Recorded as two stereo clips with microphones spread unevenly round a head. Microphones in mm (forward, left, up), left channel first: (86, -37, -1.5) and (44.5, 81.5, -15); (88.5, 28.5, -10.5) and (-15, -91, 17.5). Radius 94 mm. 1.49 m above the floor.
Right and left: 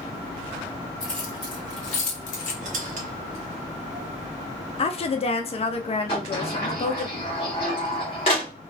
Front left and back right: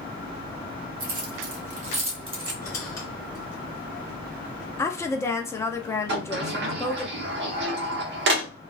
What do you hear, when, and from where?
1.0 s keys jangling: 150° right, 1.0 m; by 2.5 s 70° right, 1.2 m
2.6 s a squeak: 130° left, 0.7 m
4.8 s a woman speaking: 20° right, 0.5 m
6.1 s a sliding door: 130° right, 0.7 m